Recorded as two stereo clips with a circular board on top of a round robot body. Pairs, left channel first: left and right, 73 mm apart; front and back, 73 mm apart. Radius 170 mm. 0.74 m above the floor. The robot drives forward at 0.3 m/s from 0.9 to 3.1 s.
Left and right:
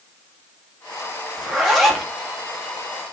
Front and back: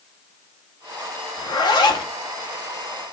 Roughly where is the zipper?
Ahead.